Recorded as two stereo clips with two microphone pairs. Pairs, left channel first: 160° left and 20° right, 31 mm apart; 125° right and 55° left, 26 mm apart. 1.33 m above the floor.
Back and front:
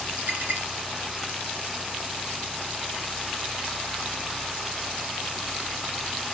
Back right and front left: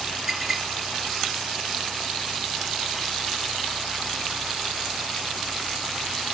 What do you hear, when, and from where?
0.3 s a clink: 15° right, 7.5 m